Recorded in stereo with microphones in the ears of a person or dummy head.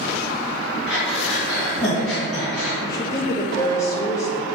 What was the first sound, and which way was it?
Breathing, centre (ahead or behind).